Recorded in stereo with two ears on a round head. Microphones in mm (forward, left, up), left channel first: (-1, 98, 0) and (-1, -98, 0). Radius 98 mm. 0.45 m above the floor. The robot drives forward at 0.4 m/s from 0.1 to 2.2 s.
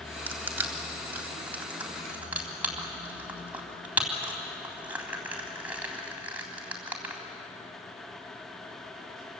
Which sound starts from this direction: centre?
Crushing, at 0.3 s.